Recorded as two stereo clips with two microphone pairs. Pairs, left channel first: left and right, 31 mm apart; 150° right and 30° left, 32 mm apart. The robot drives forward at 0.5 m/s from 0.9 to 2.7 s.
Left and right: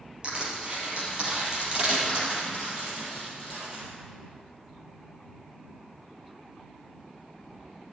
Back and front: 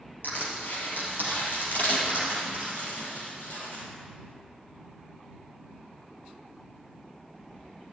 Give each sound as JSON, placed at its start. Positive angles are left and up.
{"t": 0.2, "sound": "crushing", "azimuth_deg": -140, "distance_m": 4.0}